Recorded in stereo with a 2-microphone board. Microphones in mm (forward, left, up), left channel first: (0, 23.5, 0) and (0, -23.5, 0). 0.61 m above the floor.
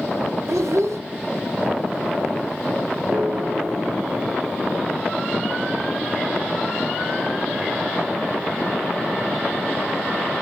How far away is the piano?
About 3 m.